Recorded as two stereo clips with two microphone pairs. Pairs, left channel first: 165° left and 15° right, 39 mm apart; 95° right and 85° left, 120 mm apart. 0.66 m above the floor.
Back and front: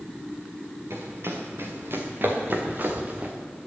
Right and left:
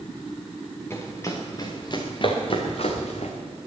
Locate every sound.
0.9 s running footsteps: 30° right, 3.5 m; by 3.3 s 75° right, 3 m